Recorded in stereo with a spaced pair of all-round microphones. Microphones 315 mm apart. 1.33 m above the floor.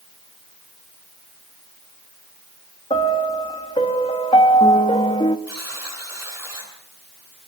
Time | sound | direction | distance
2.9 | a piano | 15° left (ahead or behind) | 1.3 m
5.5 | a buzzer | 55° right (ahead or behind) | 9 m